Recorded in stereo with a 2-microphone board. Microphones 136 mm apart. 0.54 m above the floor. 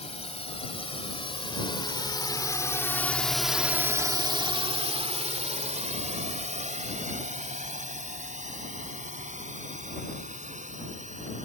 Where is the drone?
50° left (ahead or behind); by 11.5 s 65° right (ahead or behind).